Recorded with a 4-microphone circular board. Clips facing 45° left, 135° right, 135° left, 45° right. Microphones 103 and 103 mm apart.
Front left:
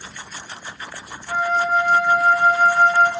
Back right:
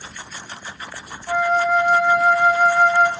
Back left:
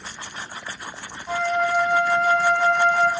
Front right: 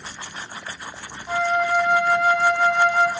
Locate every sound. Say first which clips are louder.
1.3 s a flute: back right 2 dB, front right 1 dB; 130° right, 3 m